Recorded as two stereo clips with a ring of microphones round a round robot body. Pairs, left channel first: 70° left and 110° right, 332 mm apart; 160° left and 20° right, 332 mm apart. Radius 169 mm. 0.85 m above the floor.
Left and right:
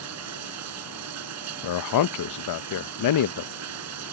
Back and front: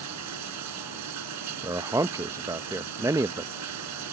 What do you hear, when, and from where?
0.0 s running water: 65° right
1.6 s a man speaking: 55° left